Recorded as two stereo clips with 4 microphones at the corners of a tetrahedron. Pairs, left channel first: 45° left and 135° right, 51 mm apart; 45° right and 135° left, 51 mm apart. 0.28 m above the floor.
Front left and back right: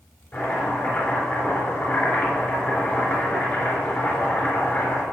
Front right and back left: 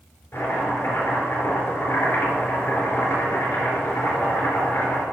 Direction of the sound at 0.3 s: Straight ahead.